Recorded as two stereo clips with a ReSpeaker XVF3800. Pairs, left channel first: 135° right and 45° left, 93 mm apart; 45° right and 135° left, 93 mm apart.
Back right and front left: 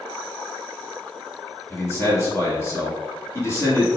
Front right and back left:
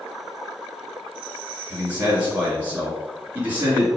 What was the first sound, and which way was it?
A man speaking, 165° right.